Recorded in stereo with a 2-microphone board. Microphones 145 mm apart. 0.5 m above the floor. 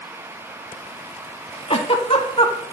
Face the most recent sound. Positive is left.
turn(degrees=40)  # may be behind; listen again after turning